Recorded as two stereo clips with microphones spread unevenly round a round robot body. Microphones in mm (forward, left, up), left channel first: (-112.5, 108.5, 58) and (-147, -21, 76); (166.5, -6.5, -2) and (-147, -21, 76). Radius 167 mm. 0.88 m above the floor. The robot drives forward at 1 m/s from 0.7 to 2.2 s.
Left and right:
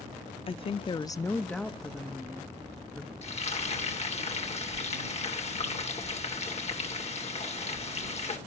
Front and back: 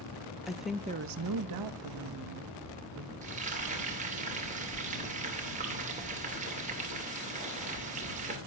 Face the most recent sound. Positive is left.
turn(degrees=115)